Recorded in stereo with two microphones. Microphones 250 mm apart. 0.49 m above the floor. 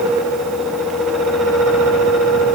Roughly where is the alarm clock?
No alarm clock in this recording.